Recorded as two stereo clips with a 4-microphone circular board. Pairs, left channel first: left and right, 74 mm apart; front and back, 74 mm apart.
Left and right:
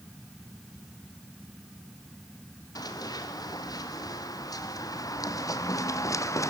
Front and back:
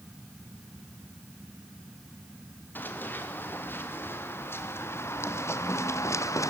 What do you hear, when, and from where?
2.8 s running footsteps: 60° left, 3.5 m; by 6.5 s 45° left, 1.7 m